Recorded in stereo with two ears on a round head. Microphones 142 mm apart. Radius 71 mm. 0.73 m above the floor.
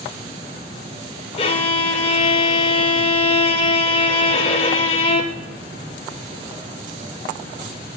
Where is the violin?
35° left (ahead or behind), 0.6 m.